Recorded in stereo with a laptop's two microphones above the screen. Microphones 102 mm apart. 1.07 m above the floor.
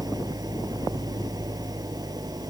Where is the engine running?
40° right (ahead or behind).